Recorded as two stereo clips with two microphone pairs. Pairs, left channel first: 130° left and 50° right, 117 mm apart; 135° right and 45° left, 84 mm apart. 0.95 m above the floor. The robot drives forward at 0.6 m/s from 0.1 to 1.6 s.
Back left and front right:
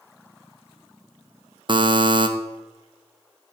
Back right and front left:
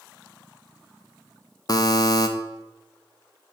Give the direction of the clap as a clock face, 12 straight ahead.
I don't hear a clap.